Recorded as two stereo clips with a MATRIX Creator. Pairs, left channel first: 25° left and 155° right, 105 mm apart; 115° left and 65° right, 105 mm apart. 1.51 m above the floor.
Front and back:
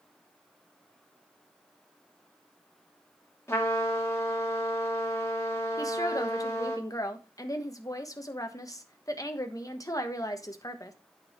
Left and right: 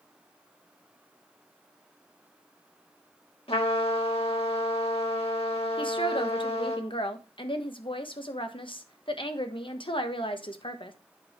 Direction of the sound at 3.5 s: 85° left.